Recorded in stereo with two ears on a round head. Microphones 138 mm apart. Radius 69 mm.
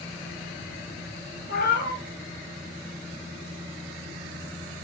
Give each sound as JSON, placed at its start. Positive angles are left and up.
{"t": 1.5, "sound": "a cat meowing", "side_deg": 65, "distance_m": 1.1}